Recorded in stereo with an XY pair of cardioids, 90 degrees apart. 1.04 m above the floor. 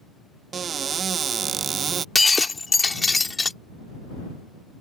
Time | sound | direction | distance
0.5 | a cupboard door | 55° right | ?
2.1 | breaking glass | 25° left | ?